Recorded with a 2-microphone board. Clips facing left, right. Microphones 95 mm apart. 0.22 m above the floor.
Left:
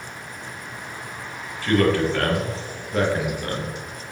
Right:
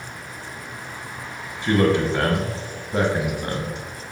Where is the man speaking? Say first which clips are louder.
Even; 20° right (ahead or behind), 1.3 m.